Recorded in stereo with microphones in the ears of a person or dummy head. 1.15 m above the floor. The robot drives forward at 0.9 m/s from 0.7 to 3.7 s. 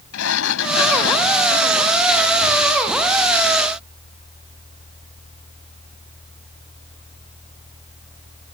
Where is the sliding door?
70° left (ahead or behind); by 2.7 s 65° left (ahead or behind).